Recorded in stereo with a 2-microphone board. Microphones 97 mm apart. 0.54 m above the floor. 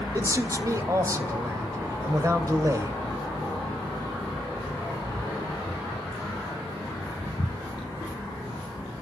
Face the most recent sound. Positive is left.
turn(degrees=-35)  # may be behind; listen again after turning